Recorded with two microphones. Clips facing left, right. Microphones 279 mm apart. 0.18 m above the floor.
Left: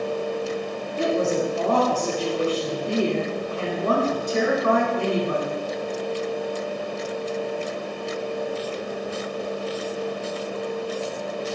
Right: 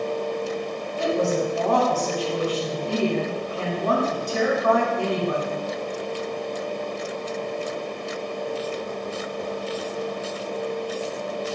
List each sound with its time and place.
1.0 s a woman speaking: 30° left (ahead or behind), 1.8 m